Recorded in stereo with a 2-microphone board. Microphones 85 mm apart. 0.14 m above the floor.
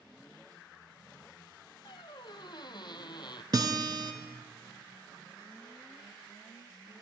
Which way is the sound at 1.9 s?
65° left (ahead or behind).